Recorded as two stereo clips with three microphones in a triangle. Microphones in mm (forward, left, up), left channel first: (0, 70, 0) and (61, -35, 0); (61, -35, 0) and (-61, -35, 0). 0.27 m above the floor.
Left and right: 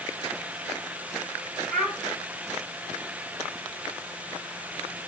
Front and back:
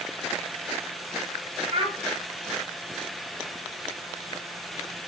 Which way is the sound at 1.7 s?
155° right.